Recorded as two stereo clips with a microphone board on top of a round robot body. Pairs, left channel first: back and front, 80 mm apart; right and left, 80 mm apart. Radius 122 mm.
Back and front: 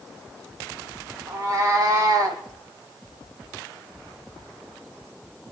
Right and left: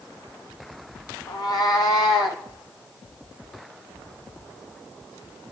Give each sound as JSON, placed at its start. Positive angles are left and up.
{"t": 1.3, "sound": "a cat meowing", "azimuth_deg": -50, "distance_m": 1.2}